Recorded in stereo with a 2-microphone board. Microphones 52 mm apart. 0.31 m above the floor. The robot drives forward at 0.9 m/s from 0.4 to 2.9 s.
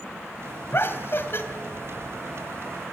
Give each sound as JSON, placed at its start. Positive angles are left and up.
{"t": 0.7, "sound": "laughter", "side_deg": 50, "distance_m": 2.0}